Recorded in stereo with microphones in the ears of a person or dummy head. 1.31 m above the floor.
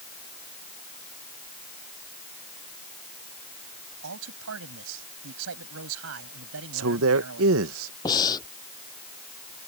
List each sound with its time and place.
4.0 s a man speaking: 75° right (ahead or behind)
6.7 s a man speaking: 75° right (ahead or behind)
8.1 s breathing: 20° left (ahead or behind)